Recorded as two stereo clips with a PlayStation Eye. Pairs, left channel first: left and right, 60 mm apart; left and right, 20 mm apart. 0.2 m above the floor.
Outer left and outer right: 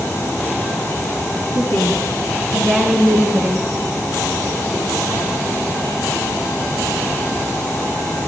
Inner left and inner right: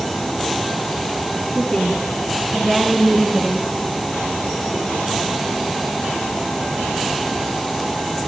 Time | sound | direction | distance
1.6 | a woman speaking | 55° left (ahead or behind) | 1.6 m